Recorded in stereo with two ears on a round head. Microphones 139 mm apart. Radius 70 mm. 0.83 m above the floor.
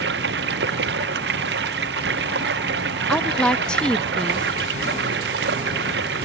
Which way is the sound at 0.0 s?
80° right.